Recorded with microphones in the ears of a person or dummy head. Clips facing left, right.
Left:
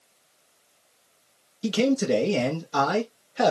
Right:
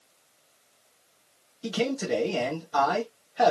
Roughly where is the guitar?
I don't hear a guitar.